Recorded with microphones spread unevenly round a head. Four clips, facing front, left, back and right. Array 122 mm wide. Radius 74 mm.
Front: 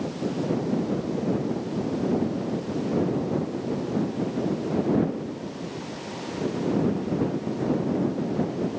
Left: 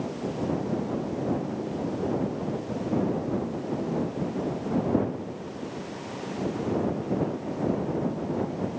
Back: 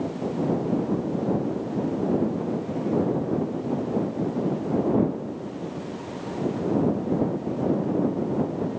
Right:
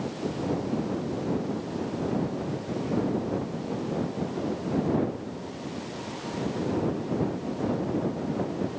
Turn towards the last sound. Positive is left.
No sound to turn to.